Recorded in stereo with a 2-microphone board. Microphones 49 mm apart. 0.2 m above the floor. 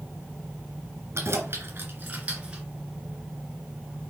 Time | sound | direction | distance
1.1 | keys jangling | 60° right (ahead or behind) | 2.5 m